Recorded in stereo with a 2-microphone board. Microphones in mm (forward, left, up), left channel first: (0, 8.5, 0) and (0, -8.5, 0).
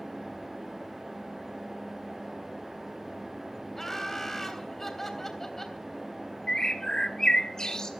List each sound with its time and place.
3.8 s laughter: 15° left (ahead or behind), 3 m
6.5 s a bird: 45° left (ahead or behind), 1.6 m